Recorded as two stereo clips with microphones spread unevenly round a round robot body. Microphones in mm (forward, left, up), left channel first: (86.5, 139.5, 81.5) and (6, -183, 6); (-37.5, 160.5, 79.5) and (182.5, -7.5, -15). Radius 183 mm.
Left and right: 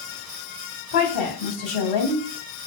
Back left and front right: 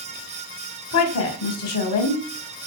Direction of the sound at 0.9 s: 110° left.